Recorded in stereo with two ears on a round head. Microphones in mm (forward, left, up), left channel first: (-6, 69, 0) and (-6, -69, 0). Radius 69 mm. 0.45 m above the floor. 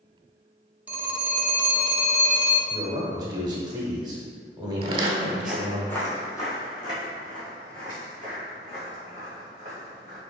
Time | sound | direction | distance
0.9 | a phone ringing | 10° right (ahead or behind) | 0.5 m
2.7 | a man speaking | 25° right (ahead or behind) | 0.9 m
4.8 | footsteps | 40° right (ahead or behind) | 0.5 m